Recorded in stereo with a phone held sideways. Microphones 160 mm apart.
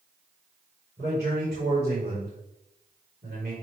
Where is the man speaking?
75° right (ahead or behind), 5 m.